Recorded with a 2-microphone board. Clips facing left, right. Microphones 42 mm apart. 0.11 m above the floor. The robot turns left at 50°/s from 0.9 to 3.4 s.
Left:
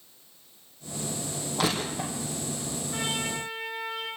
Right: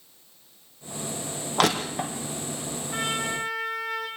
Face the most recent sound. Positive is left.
turn(degrees=-80)